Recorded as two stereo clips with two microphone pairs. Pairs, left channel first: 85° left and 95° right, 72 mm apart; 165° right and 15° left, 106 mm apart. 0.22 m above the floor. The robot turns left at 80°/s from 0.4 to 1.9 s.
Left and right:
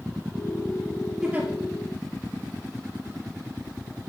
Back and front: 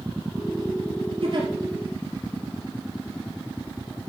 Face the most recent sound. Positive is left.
turn(degrees=-65)